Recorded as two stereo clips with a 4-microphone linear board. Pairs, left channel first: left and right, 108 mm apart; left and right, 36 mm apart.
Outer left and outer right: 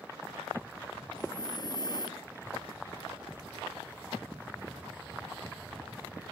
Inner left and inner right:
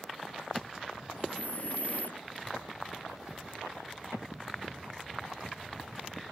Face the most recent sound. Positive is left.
turn(degrees=45)  # may be behind; listen again after turning